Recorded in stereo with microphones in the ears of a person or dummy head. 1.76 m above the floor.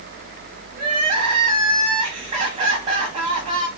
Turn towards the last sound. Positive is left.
turn(degrees=-40)  # may be behind; listen again after turning